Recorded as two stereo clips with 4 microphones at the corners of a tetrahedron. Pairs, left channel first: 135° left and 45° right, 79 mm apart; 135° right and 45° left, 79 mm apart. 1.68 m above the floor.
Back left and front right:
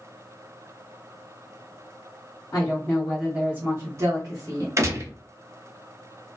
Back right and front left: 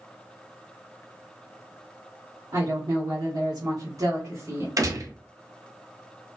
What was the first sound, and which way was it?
A woman speaking, 85° left.